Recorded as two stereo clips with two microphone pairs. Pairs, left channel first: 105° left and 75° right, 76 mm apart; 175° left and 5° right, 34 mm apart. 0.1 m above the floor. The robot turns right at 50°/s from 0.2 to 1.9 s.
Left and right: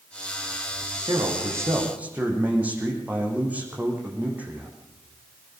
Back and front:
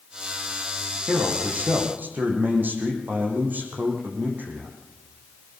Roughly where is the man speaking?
Ahead right.